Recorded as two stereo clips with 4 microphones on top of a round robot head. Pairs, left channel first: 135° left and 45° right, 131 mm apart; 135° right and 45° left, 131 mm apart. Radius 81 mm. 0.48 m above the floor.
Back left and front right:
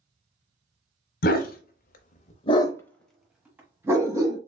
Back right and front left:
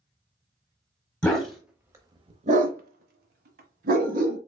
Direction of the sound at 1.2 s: 140° left.